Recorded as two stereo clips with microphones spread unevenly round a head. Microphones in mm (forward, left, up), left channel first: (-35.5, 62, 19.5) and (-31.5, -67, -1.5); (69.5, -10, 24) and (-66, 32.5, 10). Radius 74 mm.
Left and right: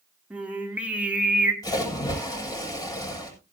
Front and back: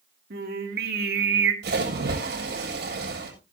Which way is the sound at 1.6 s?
150° left.